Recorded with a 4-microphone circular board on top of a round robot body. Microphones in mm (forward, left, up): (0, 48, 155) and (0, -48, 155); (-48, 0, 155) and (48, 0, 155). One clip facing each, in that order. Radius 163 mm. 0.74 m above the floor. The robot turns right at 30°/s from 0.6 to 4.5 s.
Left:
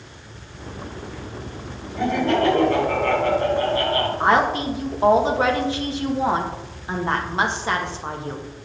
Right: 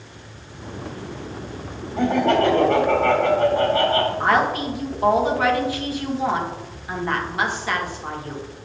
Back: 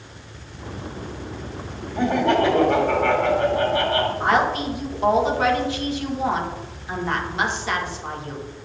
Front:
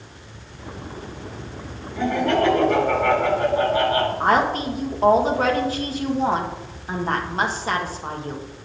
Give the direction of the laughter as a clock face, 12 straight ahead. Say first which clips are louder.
Right 2 dB, back 1 dB; 4 o'clock.